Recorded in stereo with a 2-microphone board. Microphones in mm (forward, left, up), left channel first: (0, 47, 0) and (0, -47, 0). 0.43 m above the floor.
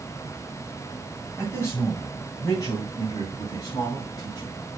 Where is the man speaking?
35° left (ahead or behind), 2.5 m; by 4.6 s 60° left (ahead or behind), 3.5 m.